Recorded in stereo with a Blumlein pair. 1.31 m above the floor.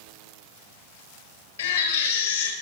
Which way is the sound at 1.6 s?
65° left.